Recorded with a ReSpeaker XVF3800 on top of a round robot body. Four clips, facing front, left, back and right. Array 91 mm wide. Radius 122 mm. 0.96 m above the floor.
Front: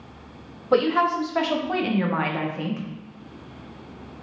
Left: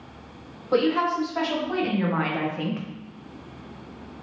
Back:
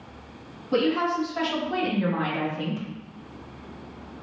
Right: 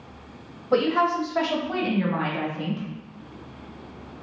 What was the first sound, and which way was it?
A woman speaking, 15° right.